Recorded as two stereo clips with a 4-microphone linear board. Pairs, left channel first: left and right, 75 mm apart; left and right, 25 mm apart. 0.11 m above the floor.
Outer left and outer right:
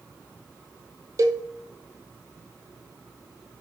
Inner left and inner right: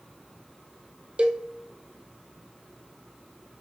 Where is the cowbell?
50° right (ahead or behind), 0.8 m.